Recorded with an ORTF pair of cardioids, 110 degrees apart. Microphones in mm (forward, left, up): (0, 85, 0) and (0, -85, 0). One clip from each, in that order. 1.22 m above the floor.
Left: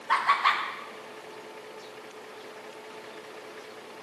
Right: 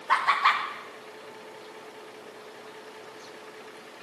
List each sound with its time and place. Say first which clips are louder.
0.1 s laughter: right 1 dB; 15° right, 1.0 m